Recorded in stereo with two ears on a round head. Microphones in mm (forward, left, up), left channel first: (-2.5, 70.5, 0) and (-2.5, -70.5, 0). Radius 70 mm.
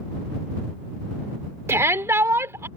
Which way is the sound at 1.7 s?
15° right (ahead or behind).